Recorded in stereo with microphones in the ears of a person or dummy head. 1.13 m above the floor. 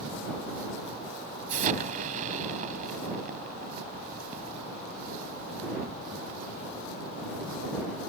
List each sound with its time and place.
1.5 s an explosion: 40° right (ahead or behind)